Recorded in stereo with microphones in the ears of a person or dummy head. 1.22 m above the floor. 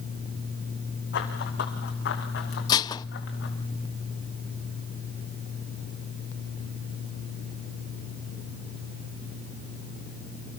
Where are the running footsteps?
60° left (ahead or behind), 6 m; by 3.5 s 65° left (ahead or behind), 7.5 m.